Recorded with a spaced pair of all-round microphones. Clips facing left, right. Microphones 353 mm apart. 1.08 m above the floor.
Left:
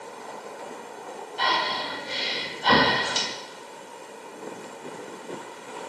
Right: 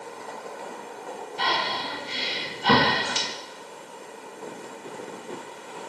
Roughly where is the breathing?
Right.